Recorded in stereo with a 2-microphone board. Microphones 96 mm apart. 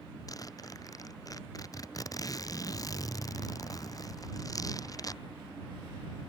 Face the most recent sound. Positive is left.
turn(degrees=40)  # may be behind; listen again after turning